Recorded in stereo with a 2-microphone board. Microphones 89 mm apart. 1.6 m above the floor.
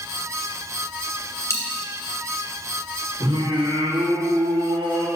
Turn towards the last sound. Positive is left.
turn(degrees=-75)  # may be behind; listen again after turning